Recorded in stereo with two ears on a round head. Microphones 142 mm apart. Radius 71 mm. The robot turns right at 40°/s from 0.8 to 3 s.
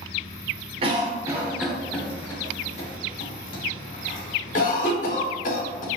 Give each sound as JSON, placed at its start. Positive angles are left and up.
{"t": 0.8, "sound": "a cough", "side_deg": -35, "distance_m": 0.8}